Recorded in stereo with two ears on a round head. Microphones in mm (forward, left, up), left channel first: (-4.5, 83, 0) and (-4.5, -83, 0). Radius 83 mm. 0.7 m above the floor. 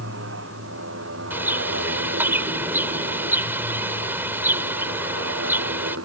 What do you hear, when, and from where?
0.0 s a motorcycle: 75° right (ahead or behind); by 6.1 s 90° right
1.3 s a bird: 10° right (ahead or behind)